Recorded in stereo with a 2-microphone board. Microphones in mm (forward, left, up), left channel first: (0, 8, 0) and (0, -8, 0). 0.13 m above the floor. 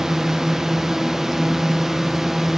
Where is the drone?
25° right (ahead or behind); by 2.6 s 15° right (ahead or behind).